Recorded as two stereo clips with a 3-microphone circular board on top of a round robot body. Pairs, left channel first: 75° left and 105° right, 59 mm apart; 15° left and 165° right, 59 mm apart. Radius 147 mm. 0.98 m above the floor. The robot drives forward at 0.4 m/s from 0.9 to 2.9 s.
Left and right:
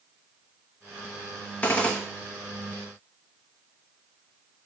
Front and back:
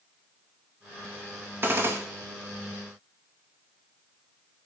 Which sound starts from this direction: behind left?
A gunshot, at 1.6 s.